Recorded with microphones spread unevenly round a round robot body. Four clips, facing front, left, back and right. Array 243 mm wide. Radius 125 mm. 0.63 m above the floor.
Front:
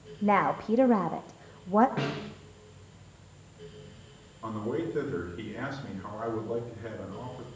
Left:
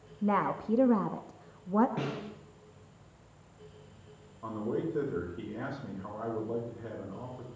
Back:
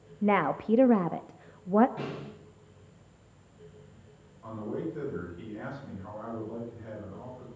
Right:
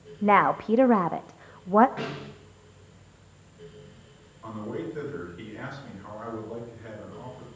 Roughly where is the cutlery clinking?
No cutlery clinking in this recording.